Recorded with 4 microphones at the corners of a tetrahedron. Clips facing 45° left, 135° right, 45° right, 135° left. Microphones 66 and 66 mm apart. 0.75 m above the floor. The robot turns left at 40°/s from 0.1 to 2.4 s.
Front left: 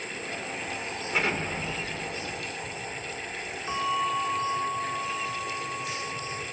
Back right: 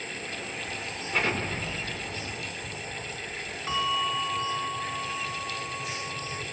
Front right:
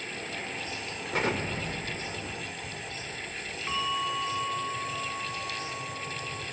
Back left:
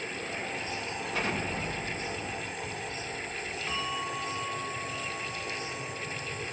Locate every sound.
1.1 s an explosion: 35° right, 1.9 m; by 3.6 s 85° right, 1.9 m
3.7 s a bell: 120° right, 3.5 m